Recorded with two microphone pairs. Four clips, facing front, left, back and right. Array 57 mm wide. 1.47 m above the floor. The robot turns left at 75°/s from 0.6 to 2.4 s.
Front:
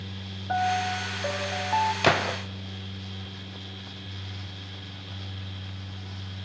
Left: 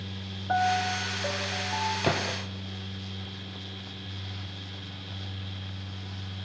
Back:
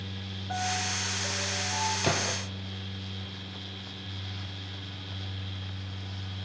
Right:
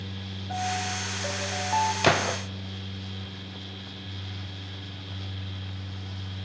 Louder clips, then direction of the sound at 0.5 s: Left 5 dB, front 7 dB; 55° left.